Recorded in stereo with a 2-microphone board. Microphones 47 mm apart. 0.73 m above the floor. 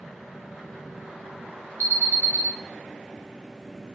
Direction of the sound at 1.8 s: 55° left (ahead or behind).